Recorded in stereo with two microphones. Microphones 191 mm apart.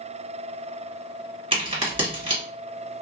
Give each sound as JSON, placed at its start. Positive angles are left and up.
{"t": 1.5, "sound": "a crack", "side_deg": -30, "distance_m": 1.8}